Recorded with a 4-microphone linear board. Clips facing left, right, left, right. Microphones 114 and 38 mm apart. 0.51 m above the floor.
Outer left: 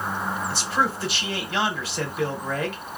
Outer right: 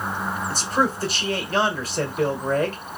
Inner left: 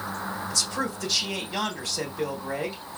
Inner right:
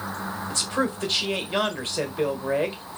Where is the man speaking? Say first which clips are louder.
Outer right 4 dB, inner right 5 dB; 40° right (ahead or behind), 1.7 m.